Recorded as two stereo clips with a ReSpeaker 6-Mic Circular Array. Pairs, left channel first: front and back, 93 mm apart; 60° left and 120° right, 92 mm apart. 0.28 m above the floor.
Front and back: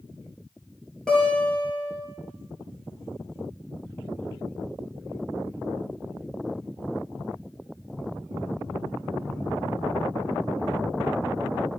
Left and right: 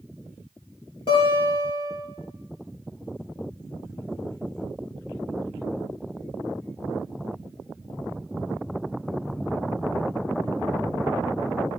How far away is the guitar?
About 5 m.